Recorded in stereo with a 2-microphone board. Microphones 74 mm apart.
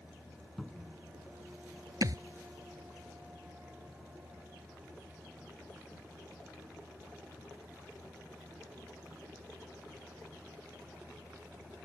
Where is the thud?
55° right (ahead or behind).